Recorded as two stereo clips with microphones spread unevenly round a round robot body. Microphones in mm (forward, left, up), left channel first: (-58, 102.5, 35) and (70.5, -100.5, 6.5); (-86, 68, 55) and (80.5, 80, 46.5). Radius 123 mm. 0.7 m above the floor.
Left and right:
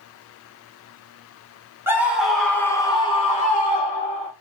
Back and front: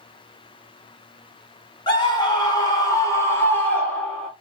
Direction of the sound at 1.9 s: 125° right.